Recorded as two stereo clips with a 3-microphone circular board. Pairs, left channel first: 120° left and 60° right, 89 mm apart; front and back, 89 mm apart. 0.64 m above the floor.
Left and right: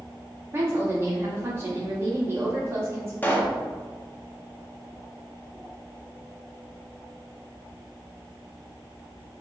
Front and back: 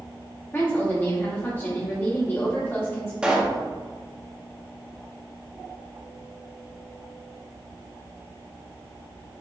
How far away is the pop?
About 0.7 m.